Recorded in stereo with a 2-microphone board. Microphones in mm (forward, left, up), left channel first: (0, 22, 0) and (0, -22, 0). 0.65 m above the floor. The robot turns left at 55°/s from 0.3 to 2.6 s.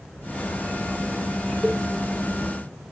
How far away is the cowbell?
About 0.7 m.